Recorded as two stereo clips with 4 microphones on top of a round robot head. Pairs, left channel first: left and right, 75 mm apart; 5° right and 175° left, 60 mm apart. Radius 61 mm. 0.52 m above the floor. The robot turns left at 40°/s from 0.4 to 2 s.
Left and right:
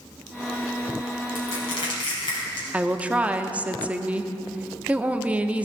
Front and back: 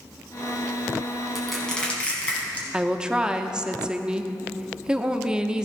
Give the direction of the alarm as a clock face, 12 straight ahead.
No alarm in this recording.